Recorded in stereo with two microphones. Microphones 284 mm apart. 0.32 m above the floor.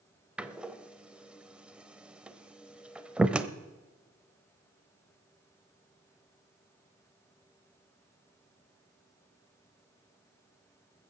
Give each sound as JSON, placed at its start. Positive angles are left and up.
{"t": 0.4, "sound": "a door slam", "side_deg": -5, "distance_m": 0.7}